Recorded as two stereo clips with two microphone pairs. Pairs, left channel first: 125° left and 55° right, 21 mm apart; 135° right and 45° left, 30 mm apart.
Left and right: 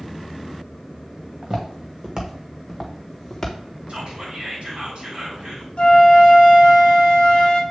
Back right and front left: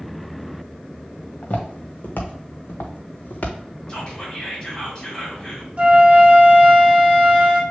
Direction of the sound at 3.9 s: 65° right.